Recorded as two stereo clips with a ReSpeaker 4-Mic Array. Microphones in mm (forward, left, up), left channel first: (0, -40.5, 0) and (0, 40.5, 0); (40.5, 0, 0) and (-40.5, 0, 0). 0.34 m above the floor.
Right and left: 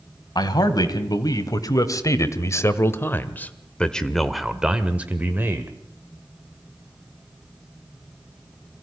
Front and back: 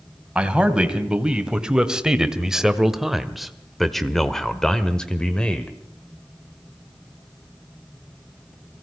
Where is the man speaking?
105° right, 2.5 m; by 5.7 s 65° left, 1.5 m.